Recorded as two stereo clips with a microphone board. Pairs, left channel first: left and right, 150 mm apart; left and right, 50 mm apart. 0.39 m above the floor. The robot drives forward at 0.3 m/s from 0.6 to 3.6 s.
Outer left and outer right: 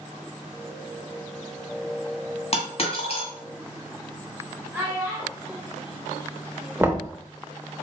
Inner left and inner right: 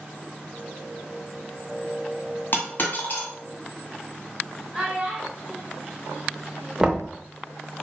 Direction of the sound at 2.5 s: 45° left (ahead or behind).